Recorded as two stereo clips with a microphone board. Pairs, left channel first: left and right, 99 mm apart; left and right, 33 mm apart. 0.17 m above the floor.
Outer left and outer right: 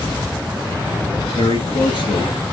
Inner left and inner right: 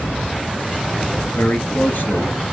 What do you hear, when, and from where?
1.4 s a man speaking: 55° left (ahead or behind), 3 m